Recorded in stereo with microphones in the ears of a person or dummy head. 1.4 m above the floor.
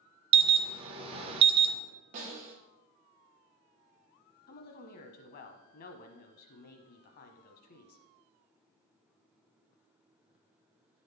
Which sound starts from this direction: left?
A woman speaking, at 4.5 s.